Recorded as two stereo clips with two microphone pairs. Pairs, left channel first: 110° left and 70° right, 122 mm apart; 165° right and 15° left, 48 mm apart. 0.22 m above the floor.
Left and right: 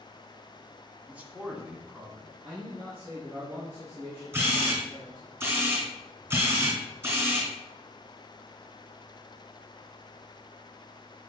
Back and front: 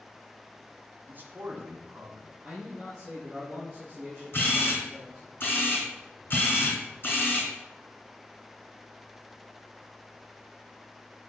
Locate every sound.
1.1 s a man speaking: straight ahead, 1.5 m; by 2.3 s 10° left, 2.0 m
2.4 s a man speaking: 40° right, 3.5 m
4.3 s a camera shutter: 130° right, 3 m